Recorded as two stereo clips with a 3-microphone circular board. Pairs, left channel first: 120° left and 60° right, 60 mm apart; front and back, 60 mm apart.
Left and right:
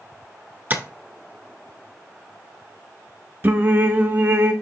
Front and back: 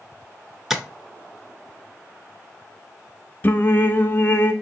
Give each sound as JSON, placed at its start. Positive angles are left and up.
{"t": 0.7, "sound": "tapping", "azimuth_deg": -100, "distance_m": 0.7}
{"t": 3.4, "sound": "singing", "azimuth_deg": -30, "distance_m": 0.7}